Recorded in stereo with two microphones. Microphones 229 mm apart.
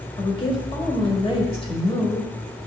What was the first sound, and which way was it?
A woman speaking, 25° left (ahead or behind).